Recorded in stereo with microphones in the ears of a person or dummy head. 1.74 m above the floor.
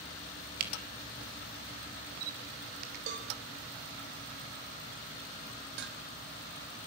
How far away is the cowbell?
About 4 m.